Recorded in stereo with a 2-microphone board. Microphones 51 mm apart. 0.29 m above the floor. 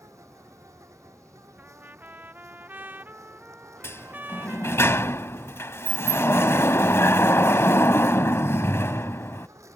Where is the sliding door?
55° left (ahead or behind).